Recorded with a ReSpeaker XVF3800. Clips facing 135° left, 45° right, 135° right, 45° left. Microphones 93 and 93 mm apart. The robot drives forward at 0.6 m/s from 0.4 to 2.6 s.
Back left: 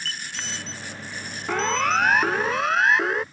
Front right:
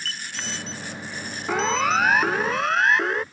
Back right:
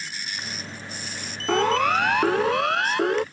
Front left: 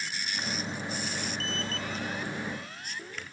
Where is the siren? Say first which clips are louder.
Front right 1 dB, back right 15 dB; 130° right; by 3.2 s 135° right.